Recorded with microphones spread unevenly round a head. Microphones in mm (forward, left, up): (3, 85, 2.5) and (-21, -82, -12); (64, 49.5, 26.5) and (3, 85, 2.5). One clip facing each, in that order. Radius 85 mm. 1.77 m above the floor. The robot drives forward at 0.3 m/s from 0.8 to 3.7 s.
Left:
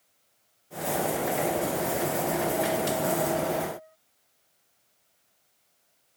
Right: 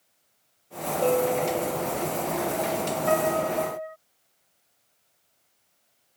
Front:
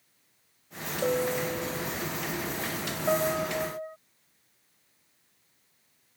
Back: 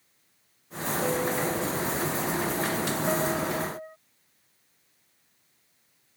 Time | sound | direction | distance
1.0 | a bell | 105° right | ?
3.1 | a piano | 100° right | ?